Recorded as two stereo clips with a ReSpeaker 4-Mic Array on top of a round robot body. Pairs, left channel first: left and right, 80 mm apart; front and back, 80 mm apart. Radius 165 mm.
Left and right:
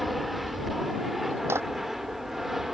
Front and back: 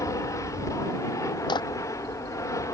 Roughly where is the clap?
Ahead right.